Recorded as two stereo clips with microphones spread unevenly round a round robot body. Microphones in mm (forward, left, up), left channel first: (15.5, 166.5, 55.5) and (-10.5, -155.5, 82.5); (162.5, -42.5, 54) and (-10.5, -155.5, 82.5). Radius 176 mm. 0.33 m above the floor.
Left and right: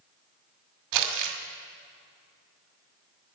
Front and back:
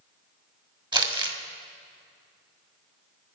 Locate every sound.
0.9 s crumpling: 75° right, 2 m